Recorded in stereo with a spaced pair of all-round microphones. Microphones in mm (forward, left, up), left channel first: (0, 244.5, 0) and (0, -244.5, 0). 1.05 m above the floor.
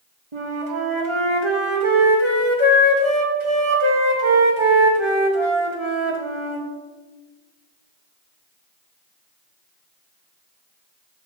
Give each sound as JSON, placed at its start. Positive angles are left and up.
{"t": 0.3, "sound": "a flute", "side_deg": -65, "distance_m": 1.3}